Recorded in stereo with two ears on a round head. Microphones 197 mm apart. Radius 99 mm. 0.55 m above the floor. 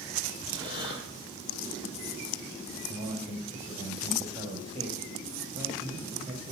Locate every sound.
0.5 s breathing: 20° right (ahead or behind), 8.5 m
2.9 s a man speaking: 25° right (ahead or behind), 3 m